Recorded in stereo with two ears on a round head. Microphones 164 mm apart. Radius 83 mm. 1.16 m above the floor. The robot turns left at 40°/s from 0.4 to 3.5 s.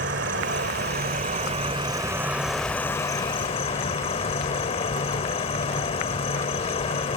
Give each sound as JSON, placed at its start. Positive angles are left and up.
{"t": 0.0, "sound": "an insect", "azimuth_deg": -95}